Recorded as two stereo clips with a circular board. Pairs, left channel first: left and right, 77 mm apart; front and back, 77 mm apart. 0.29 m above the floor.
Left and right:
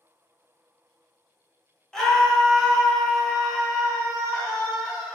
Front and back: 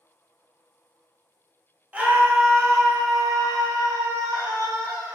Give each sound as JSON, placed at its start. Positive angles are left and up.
{"t": 1.9, "sound": "a scream", "azimuth_deg": 155, "distance_m": 1.0}